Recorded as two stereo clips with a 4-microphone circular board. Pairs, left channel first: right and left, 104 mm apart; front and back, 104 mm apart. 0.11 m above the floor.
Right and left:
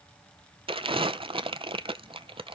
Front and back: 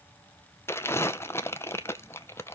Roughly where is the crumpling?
Ahead left.